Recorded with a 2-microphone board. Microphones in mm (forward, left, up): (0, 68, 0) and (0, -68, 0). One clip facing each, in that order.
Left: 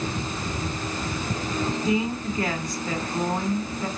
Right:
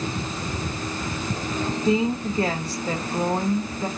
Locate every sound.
1.9 s a woman speaking: 30° right (ahead or behind), 1.2 m